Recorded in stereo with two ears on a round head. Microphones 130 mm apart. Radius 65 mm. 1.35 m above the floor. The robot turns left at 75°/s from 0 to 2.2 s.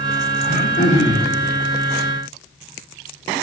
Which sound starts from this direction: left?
Throat clearing, at 0.4 s.